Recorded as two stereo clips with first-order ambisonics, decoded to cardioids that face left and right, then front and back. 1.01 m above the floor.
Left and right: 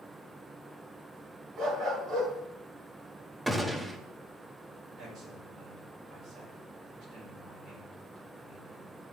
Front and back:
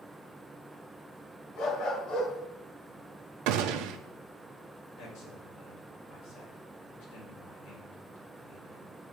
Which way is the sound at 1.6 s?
35° right.